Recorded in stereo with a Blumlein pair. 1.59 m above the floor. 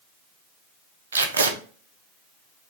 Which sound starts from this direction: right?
Tape being pulled, at 1.1 s.